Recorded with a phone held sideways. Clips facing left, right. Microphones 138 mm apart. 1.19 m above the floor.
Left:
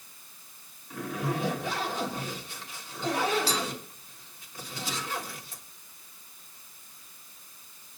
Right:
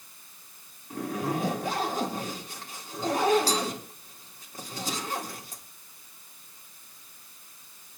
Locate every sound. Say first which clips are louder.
0.9 s a zipper: right 2 dB; 40° right (ahead or behind), 3 m